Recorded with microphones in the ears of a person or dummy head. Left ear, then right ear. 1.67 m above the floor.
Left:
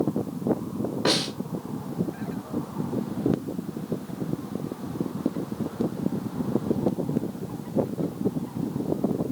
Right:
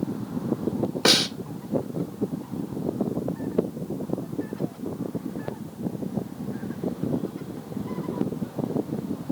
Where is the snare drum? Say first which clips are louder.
Right 5 dB; 80° right, 1.0 m.